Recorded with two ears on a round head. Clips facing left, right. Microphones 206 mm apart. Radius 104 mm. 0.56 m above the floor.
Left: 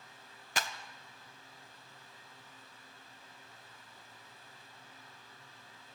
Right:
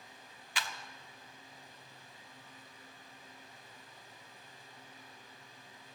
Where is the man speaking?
No man speaking in this recording.